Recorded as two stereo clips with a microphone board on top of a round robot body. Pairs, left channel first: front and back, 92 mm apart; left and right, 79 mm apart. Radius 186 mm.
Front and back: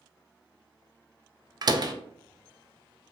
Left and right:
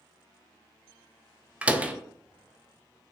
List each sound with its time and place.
1.6 s a door slam: 160° right, 0.5 m